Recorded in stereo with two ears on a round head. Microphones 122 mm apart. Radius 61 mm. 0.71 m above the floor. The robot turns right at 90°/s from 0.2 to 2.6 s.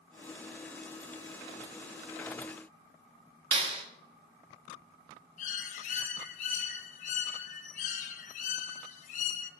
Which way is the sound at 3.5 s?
40° right (ahead or behind).